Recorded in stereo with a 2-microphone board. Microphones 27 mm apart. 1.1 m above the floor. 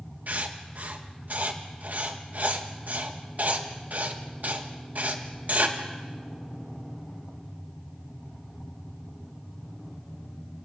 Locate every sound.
0.3 s writing: 65° right (ahead or behind), 1.5 m